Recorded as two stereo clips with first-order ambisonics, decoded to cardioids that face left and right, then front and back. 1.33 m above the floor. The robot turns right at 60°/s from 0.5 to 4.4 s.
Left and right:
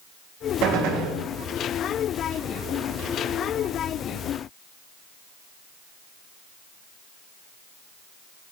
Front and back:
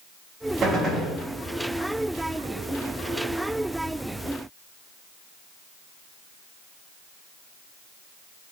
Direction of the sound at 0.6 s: 115° right.